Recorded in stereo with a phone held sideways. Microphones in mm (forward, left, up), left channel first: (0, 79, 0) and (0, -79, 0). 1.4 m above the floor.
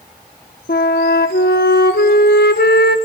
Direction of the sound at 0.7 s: 85° left.